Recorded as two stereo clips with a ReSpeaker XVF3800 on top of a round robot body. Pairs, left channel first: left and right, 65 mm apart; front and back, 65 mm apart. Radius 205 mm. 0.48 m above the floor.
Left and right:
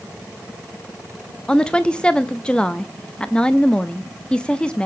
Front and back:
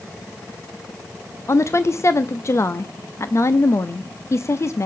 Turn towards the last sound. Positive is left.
turn(degrees=20)